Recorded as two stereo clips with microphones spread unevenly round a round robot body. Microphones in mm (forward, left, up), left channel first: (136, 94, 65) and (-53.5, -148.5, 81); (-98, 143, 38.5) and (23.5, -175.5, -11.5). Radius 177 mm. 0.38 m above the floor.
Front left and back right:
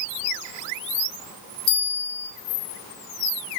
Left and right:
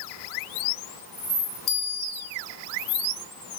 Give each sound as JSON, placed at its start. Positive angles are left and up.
{"t": 1.7, "sound": "a bell", "azimuth_deg": 35, "distance_m": 3.5}